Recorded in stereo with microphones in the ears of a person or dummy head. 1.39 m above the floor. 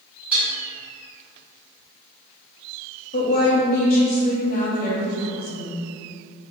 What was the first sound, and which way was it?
Dishes clattering, 10° right (ahead or behind).